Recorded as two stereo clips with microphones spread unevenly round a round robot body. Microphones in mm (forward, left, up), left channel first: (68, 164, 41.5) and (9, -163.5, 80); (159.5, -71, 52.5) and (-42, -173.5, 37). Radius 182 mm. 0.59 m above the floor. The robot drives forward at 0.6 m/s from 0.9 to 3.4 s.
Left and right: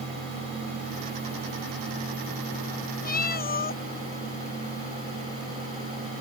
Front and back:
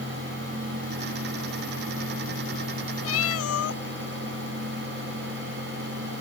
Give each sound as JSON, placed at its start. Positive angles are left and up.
{"t": 3.0, "sound": "a cat meowing", "azimuth_deg": 15}